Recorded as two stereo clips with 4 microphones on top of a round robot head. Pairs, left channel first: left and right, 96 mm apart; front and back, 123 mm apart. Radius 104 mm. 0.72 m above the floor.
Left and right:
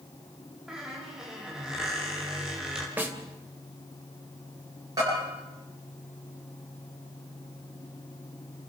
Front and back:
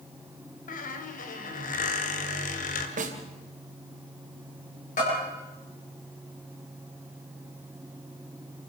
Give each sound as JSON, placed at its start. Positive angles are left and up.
{"t": 0.7, "sound": "a squeak", "azimuth_deg": -5, "distance_m": 2.0}
{"t": 3.0, "sound": "a snare drum", "azimuth_deg": -165, "distance_m": 2.5}
{"t": 5.0, "sound": "a bell", "azimuth_deg": -30, "distance_m": 10.0}